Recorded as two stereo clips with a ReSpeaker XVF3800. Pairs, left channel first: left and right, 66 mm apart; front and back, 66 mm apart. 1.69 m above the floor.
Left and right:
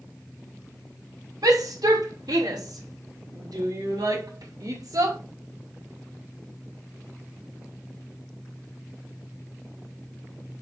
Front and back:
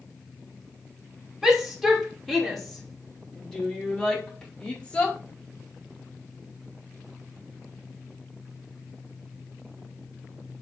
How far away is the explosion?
I don't hear an explosion.